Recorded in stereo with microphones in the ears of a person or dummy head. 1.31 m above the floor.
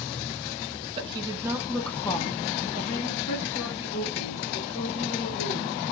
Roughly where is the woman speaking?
Right.